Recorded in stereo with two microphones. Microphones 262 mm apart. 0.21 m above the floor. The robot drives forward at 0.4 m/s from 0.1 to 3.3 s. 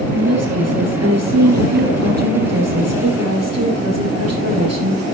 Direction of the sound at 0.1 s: 70° right (ahead or behind).